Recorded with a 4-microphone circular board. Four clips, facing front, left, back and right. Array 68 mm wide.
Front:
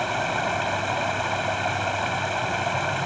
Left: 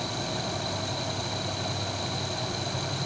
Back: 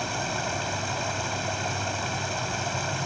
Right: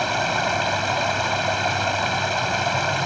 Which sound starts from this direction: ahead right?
Running water, at 0.0 s.